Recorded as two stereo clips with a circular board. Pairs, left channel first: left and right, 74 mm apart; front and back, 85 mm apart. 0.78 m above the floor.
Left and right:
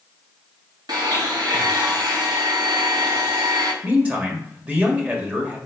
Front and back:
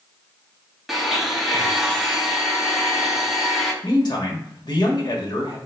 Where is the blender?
95° right, 1.0 m.